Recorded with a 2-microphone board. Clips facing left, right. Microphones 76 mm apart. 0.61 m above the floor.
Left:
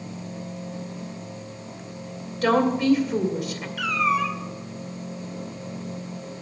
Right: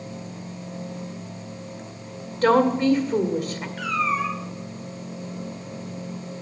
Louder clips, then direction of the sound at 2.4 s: Right 2 dB; 40° right (ahead or behind).